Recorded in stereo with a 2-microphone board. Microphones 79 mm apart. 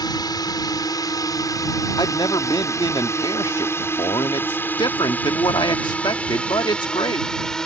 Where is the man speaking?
65° left (ahead or behind).